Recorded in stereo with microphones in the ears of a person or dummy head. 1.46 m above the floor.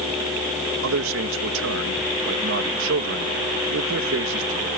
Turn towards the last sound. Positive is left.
turn(degrees=-70)  # may be behind; listen again after turning